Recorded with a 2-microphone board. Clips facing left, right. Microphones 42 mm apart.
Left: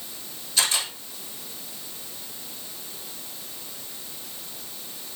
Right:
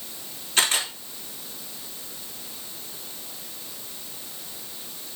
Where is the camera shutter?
50° right (ahead or behind), 4 m.